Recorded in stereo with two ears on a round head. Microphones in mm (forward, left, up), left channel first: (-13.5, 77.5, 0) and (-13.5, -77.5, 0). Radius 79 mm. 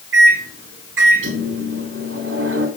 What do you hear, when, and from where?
0.1 s a microwave: 85° right, 4 m